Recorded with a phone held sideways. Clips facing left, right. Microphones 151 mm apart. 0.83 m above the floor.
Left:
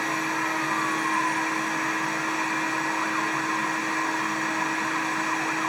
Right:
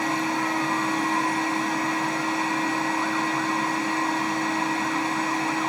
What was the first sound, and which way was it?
A machine running, 30° right (ahead or behind).